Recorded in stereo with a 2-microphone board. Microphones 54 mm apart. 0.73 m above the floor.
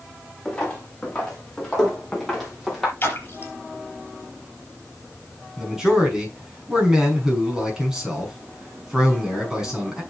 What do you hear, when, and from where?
0.5 s footsteps: 20° left (ahead or behind), 6 m; by 2.9 s 5° left (ahead or behind), 6 m
3.0 s a splash: 40° left (ahead or behind), 4 m
5.6 s a man speaking: 10° right (ahead or behind), 6 m